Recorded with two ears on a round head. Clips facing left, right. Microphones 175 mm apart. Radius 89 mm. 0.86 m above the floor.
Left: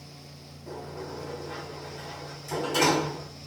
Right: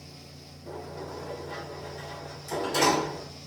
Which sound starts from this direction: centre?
A sliding door, at 0.7 s.